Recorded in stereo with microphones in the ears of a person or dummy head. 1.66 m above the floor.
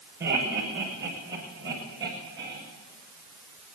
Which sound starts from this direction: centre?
Laughter, at 0.2 s.